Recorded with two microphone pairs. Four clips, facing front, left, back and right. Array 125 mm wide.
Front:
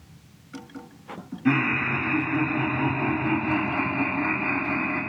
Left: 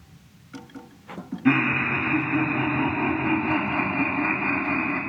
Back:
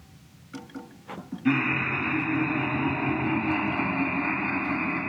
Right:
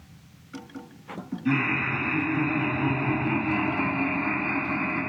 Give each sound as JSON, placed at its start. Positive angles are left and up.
{"t": 1.4, "sound": "laughter", "azimuth_deg": 65, "distance_m": 1.9}